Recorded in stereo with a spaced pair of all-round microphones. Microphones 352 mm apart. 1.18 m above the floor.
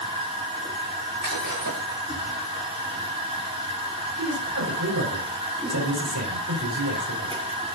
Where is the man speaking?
55° right (ahead or behind), 5 m.